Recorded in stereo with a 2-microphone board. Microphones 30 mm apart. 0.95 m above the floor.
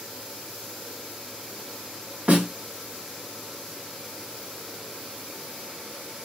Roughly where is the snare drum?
Right.